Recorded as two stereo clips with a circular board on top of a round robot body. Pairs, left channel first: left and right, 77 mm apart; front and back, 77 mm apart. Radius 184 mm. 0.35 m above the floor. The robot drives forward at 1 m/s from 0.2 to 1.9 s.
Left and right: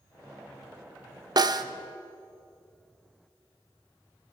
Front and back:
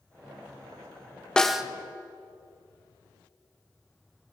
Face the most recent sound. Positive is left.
turn(degrees=-120)